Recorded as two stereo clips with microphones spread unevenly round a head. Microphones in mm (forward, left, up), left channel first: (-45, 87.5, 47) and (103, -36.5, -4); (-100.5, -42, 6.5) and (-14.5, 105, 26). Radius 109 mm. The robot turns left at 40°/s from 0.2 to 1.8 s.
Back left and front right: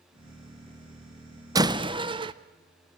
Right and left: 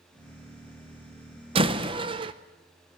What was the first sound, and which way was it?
A door slam, 40° left.